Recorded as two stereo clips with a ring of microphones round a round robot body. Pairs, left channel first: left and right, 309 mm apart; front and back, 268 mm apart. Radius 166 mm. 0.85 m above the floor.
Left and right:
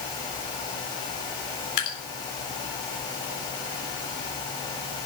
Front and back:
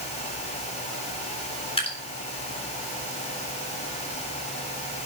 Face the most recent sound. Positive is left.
turn(degrees=70)